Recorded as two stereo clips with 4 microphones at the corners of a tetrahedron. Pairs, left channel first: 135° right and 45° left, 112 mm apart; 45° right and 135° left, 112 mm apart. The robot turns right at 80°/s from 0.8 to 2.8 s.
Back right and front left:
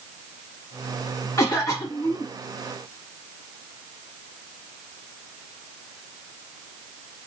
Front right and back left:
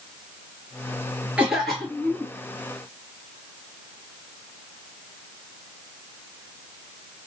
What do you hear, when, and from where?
1.4 s a cough: 160° right, 1.6 m; by 2.3 s 85° right, 1.6 m